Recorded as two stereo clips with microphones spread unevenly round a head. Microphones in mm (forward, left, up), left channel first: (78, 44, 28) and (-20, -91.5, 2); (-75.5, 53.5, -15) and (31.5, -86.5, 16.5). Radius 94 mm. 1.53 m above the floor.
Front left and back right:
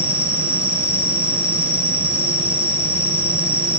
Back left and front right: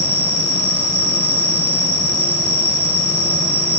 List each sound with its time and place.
0.0 s an insect: 25° right, 4.5 m